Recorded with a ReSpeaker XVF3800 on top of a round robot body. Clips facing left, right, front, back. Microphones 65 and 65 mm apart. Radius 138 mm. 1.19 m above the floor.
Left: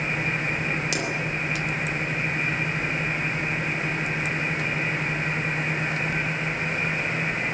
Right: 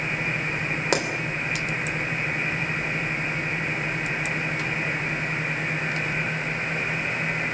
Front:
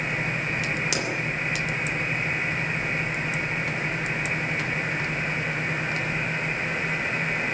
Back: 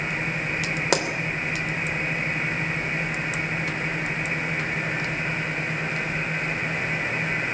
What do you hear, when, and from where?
0.9 s a pop: 140° right, 3 m